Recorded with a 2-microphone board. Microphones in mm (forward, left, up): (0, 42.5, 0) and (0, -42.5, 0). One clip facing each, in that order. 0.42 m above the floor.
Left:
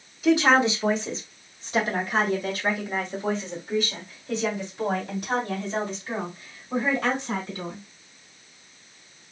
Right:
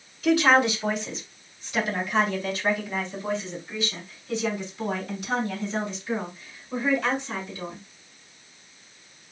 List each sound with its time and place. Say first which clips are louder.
0.2 s a woman speaking: left 1 dB; 15° left (ahead or behind), 1.4 m; by 7.8 s 60° left (ahead or behind), 4.5 m